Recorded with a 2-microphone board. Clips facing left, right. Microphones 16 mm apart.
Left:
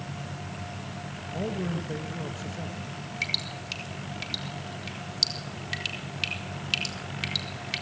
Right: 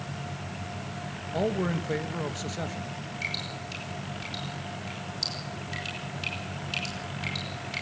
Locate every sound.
1.3 s a man speaking: 35° right (ahead or behind), 1.8 m
3.2 s dripping: 35° left (ahead or behind), 4.5 m